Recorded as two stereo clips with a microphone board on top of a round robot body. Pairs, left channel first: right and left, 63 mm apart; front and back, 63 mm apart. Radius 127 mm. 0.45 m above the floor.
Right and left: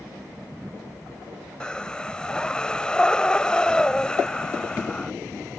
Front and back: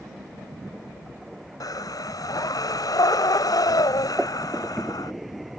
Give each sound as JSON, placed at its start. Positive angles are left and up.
{"t": 1.6, "sound": "breathing", "azimuth_deg": -15}